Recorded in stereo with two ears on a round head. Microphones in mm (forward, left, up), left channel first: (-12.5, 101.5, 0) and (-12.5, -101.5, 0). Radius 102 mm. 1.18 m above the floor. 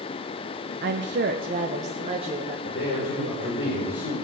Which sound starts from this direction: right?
A woman speaking, at 0.8 s.